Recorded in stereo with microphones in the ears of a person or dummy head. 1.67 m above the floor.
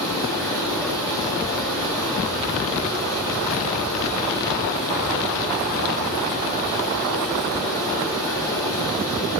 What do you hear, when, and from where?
0.0 s running water: 15° left (ahead or behind), 8.5 m